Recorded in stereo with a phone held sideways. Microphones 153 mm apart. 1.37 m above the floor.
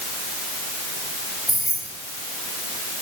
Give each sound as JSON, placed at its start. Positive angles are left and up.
{"t": 1.5, "sound": "keys jangling", "side_deg": 55, "distance_m": 6.5}